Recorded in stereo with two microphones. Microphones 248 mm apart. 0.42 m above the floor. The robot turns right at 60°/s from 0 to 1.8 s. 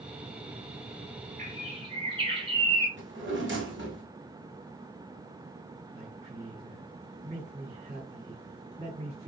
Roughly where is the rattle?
I don't hear a rattle.